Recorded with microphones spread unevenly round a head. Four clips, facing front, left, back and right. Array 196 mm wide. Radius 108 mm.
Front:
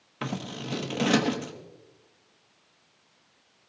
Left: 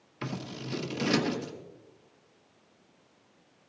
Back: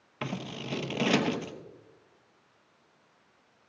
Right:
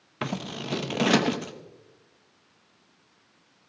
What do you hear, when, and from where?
0.2 s scissors: 75° right, 1.2 m